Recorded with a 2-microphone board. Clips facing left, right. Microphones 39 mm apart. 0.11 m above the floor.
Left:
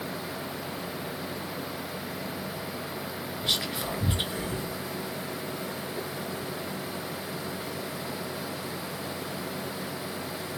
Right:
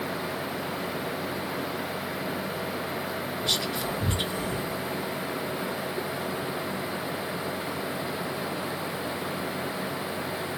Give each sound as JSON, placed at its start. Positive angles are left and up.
{"t": 3.4, "sound": "whispering", "side_deg": 20, "distance_m": 1.3}